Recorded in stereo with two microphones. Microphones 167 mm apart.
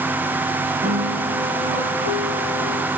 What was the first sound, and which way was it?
A piano, 60° right (ahead or behind).